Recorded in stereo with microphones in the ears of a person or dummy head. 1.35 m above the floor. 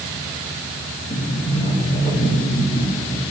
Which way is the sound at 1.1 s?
20° left (ahead or behind).